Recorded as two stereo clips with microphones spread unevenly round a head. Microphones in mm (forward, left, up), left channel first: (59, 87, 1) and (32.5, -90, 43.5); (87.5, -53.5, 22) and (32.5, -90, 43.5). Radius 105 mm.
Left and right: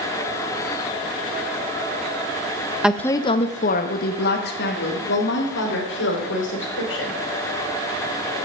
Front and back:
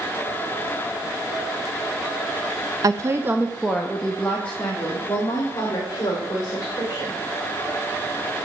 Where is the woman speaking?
165° left, 0.5 m; by 7.2 s 100° left, 3.5 m.